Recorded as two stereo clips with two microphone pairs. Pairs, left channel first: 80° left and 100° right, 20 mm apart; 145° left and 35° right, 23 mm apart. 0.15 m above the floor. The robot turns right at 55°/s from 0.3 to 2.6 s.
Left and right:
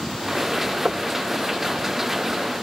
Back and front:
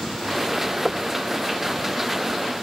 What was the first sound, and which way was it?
Knocking, 115° right.